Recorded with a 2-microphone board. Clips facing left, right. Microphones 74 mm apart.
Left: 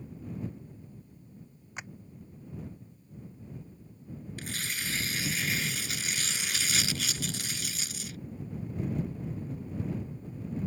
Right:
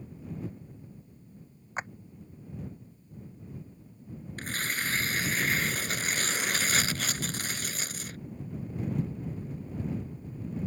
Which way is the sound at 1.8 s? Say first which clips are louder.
Right 8 dB; 40° right (ahead or behind).